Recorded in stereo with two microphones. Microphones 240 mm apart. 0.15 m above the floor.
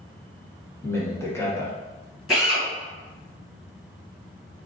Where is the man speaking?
10° left (ahead or behind), 1.1 m.